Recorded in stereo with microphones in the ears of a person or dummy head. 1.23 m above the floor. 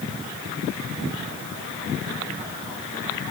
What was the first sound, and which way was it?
Only background noise.